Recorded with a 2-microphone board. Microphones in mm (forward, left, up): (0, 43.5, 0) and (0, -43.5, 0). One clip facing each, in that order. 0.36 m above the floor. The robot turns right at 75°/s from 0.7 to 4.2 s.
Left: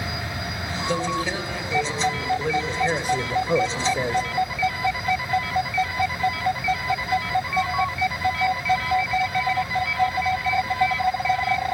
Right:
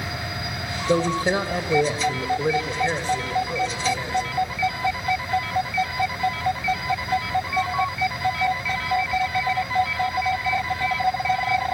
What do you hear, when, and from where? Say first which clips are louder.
0.9 s a man speaking: right 5 dB; 140° right, 1.2 m; by 4.3 s 105° left, 1.2 m